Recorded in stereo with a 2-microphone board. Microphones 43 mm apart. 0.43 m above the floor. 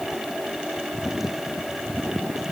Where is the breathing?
I don't hear breathing.